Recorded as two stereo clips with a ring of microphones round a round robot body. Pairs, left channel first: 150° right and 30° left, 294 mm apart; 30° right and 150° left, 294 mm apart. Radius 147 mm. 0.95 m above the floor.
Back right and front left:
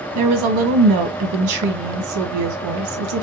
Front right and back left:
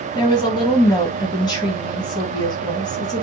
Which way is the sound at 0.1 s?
45° left.